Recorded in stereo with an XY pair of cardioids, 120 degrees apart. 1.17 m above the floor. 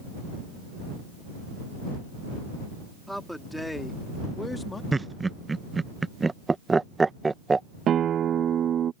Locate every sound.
3.1 s a man speaking: straight ahead; by 4.8 s 20° left
4.9 s laughter: 20° right
7.9 s a guitar: 50° right